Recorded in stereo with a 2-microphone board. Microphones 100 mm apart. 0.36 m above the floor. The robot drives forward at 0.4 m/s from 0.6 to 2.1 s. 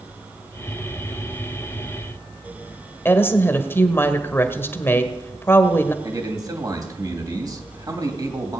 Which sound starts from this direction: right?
A man speaking, at 6.0 s.